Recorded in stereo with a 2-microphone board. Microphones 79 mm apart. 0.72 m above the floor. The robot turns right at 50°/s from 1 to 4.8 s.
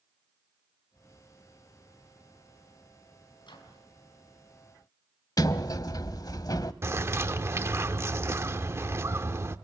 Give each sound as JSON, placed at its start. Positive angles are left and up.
{"t": 3.4, "sound": "a microwave", "side_deg": 85, "distance_m": 5.5}
{"t": 5.4, "sound": "a sliding door", "side_deg": 55, "distance_m": 0.9}
{"t": 6.8, "sound": "a bird", "side_deg": -35, "distance_m": 1.1}